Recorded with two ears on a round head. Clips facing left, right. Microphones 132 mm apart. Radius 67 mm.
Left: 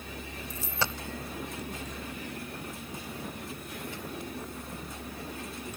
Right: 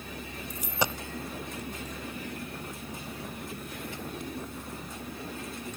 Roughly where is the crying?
No crying in this recording.